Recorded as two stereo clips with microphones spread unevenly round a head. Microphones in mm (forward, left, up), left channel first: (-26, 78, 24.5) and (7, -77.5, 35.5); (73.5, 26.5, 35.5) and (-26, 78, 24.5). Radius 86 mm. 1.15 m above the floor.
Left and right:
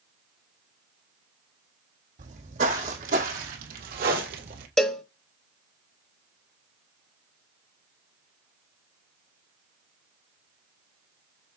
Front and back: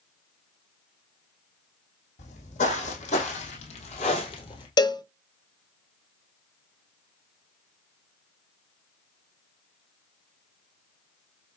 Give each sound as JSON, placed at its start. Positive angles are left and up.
{"t": 2.2, "sound": "footsteps", "azimuth_deg": -35, "distance_m": 3.0}
{"t": 4.8, "sound": "a cowbell", "azimuth_deg": 15, "distance_m": 0.6}